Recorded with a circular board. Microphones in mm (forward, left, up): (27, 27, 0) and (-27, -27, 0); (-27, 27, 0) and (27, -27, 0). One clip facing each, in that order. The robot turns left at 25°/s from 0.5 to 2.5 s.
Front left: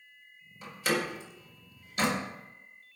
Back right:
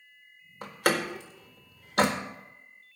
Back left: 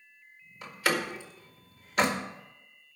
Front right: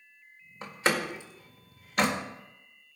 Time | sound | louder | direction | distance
0.6 | a door slam | back right 3 dB, front right 1 dB | 100° right | 1.6 m